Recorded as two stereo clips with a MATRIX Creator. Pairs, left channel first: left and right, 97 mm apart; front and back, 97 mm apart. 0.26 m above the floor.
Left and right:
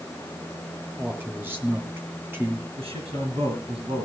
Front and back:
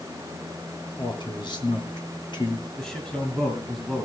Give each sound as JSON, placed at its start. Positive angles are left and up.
{"t": 1.0, "sound": "a man speaking", "azimuth_deg": -25, "distance_m": 2.5}
{"t": 2.8, "sound": "a man speaking", "azimuth_deg": -75, "distance_m": 3.5}